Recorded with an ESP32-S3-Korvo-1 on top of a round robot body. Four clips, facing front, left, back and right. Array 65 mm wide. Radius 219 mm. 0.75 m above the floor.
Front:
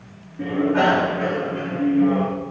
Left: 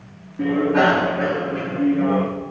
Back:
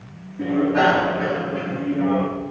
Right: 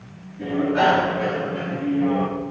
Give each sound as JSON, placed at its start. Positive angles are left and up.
{"t": 0.4, "sound": "a bicycle bell", "azimuth_deg": 75, "distance_m": 8.5}